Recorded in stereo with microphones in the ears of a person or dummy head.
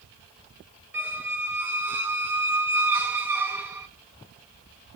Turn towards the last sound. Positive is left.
turn(degrees=-10)  # may be behind; listen again after turning